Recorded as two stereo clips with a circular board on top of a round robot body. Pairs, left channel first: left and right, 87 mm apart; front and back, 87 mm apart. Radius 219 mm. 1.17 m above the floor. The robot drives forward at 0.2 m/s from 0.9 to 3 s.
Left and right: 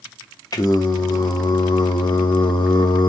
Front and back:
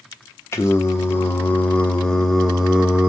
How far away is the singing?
About 0.8 m.